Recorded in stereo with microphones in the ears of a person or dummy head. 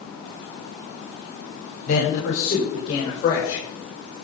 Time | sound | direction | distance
1.9 | a man speaking | 45° left (ahead or behind) | 3.5 m